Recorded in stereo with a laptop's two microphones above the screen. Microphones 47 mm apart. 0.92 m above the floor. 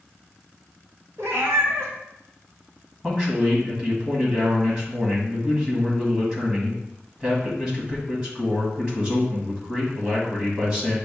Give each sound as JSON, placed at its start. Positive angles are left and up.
{"t": 1.2, "sound": "a cat meowing", "side_deg": -70, "distance_m": 1.2}
{"t": 3.0, "sound": "a man speaking", "side_deg": -20, "distance_m": 1.5}